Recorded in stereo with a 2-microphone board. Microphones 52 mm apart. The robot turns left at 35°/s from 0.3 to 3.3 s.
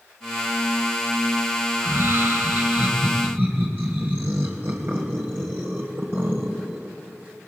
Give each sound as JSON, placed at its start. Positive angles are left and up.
{"t": 1.7, "sound": "laughter", "azimuth_deg": -75, "distance_m": 2.0}